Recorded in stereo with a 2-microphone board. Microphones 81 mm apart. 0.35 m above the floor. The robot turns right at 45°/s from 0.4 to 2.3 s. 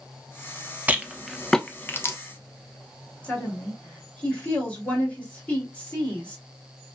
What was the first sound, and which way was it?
A rattle, 20° right (ahead or behind).